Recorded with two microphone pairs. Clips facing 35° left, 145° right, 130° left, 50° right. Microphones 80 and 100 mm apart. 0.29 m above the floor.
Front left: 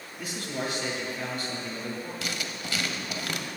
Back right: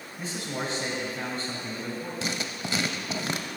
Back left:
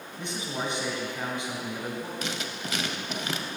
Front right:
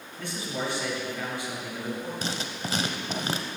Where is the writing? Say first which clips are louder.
Back right 2 dB, front right 1 dB; 95° right, 0.6 m.